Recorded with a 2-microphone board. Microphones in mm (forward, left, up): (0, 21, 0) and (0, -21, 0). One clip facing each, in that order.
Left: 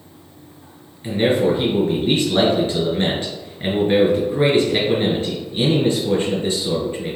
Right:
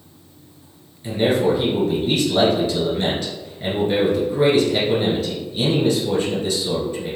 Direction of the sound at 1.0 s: 35° left (ahead or behind).